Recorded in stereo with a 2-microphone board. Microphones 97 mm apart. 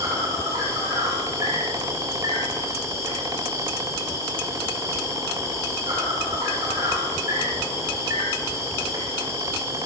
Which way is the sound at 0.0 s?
30° right (ahead or behind).